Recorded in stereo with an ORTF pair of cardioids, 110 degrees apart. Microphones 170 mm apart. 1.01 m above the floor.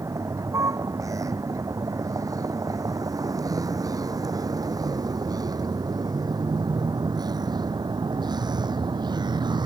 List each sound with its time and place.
0.0 s a vehicle: 20° right; by 9.7 s 25° right